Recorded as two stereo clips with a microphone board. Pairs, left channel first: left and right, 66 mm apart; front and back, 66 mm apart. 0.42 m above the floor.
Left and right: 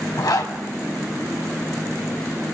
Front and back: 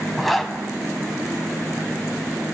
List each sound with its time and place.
0.2 s a zipper: 90° left, 1.4 m